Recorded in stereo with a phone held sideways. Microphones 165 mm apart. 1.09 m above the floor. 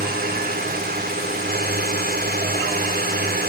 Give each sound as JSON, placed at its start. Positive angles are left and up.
{"t": 0.0, "sound": "a drone", "side_deg": -70}